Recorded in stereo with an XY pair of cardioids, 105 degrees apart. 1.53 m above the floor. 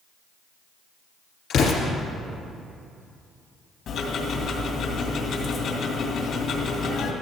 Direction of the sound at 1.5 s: 65° left.